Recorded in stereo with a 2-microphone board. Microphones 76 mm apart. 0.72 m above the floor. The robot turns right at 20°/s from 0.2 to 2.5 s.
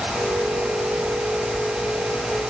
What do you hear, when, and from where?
Only background noise.